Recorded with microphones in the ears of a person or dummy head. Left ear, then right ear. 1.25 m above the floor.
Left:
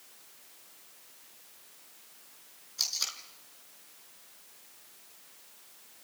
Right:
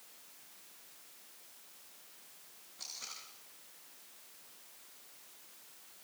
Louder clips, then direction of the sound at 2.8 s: Left 13 dB; 80° left.